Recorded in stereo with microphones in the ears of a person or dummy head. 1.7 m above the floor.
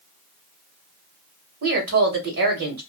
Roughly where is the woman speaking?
Right.